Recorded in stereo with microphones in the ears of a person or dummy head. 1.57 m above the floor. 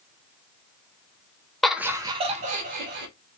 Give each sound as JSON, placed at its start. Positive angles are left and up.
{"t": 1.6, "sound": "laughter", "side_deg": 0, "distance_m": 0.5}